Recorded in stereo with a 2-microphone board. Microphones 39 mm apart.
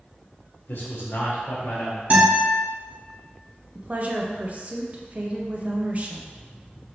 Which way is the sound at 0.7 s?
65° left (ahead or behind).